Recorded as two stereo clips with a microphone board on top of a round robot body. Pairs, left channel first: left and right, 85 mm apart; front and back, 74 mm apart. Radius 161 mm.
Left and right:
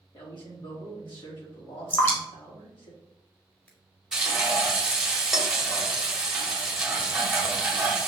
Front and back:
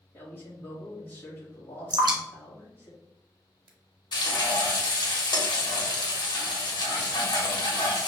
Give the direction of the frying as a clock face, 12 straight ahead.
12 o'clock.